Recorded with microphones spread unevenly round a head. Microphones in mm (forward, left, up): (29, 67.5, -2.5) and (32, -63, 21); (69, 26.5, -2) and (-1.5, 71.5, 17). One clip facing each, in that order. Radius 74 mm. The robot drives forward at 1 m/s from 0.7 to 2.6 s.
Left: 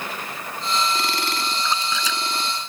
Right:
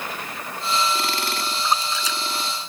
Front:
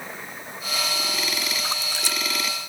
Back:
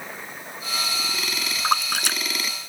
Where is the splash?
120° left; by 2.2 s 125° left.